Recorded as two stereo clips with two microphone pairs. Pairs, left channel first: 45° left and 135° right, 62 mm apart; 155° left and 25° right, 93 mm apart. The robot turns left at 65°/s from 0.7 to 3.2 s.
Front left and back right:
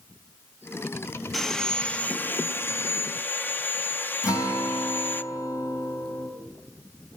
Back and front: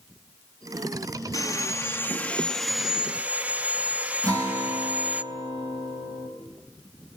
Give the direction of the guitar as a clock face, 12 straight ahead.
11 o'clock.